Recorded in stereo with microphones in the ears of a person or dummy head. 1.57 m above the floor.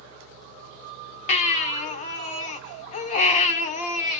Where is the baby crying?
35° left (ahead or behind), 0.6 m.